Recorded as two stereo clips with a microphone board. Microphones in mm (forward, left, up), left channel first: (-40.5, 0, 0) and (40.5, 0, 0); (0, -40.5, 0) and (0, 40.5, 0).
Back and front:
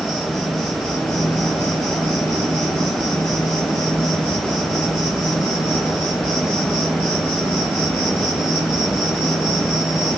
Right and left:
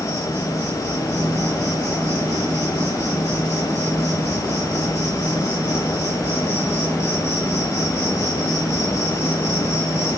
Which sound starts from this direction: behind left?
An insect, at 0.0 s.